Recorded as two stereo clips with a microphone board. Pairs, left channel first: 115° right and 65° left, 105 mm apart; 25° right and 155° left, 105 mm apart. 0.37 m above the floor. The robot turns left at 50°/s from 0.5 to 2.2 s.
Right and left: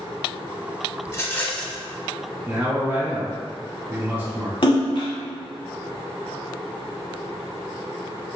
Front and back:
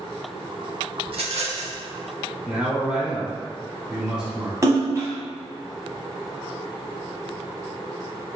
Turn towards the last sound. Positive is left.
turn(degrees=-145)